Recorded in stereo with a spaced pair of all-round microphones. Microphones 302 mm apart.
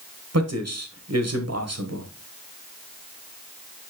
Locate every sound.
0.3 s a man speaking: 60° right (ahead or behind), 1.3 m